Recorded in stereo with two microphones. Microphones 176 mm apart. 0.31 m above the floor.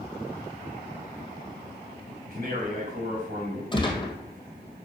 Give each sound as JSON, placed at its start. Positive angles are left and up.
{"t": 2.3, "sound": "a man speaking", "side_deg": -50, "distance_m": 3.0}
{"t": 3.7, "sound": "a gunshot", "side_deg": 30, "distance_m": 1.5}